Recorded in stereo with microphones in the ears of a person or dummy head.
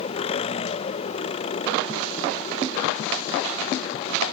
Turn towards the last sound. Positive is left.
turn(degrees=35)  # may be behind; listen again after turning